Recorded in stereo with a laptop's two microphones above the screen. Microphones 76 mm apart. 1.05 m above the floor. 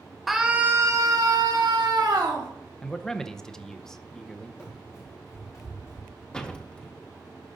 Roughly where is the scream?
Centre.